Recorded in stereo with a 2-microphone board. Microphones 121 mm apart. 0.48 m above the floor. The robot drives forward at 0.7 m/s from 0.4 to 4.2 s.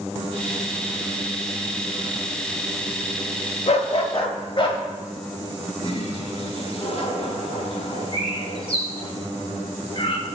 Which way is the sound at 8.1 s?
50° left (ahead or behind).